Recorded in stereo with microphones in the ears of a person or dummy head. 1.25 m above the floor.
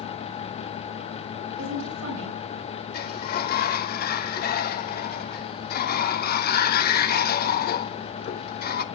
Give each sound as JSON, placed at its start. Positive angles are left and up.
{"t": 1.6, "sound": "a woman speaking", "side_deg": -65, "distance_m": 7.0}
{"t": 2.9, "sound": "a sliding door", "side_deg": 60, "distance_m": 0.9}